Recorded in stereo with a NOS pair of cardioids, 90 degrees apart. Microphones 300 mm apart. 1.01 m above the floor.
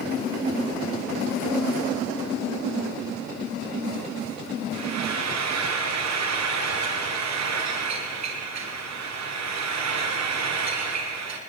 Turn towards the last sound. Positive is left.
turn(degrees=-60)